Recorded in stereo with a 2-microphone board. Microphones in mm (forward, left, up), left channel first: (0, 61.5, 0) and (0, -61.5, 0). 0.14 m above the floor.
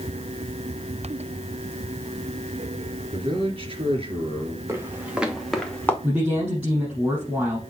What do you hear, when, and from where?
3.1 s a man speaking: 50° right (ahead or behind), 2.5 m
4.7 s footsteps: 20° right (ahead or behind), 2 m; by 5.9 s 15° left (ahead or behind), 1.8 m
6.0 s a man speaking: 15° right (ahead or behind), 4.5 m